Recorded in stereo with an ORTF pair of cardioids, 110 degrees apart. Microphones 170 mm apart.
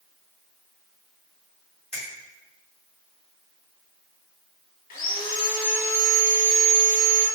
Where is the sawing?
55° left, 0.7 m.